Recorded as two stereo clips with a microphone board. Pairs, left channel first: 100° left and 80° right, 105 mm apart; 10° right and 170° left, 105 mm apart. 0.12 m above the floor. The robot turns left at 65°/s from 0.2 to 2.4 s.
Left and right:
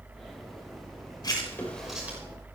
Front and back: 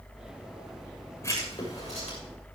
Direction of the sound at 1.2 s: 50° left.